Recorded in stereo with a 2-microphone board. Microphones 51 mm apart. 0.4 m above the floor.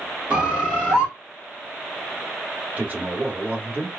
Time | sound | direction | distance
0.3 | a bird | 15° right (ahead or behind) | 1.4 m
2.8 | a man speaking | 30° right (ahead or behind) | 0.9 m